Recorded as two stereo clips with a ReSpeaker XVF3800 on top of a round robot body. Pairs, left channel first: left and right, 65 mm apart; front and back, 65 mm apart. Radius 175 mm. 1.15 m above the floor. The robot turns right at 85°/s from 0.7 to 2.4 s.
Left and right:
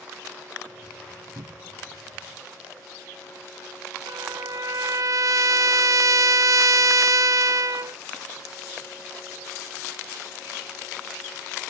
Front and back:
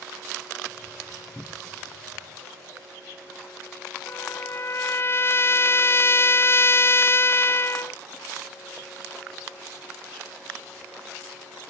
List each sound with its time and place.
1.4 s a cupboard door: 80° right; by 1.8 s 40° right
4.1 s a trumpet: 55° right